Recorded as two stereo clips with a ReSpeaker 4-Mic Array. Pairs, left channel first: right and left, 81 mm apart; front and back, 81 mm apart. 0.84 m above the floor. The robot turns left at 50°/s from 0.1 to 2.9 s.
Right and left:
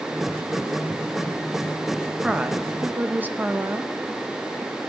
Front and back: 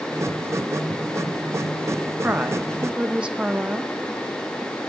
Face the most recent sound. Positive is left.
turn(degrees=125)